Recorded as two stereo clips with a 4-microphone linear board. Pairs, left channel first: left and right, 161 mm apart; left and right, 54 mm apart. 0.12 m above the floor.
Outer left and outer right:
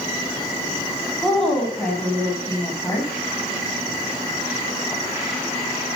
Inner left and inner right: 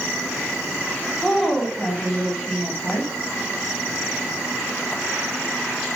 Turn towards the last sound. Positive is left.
turn(degrees=20)  # may be behind; listen again after turning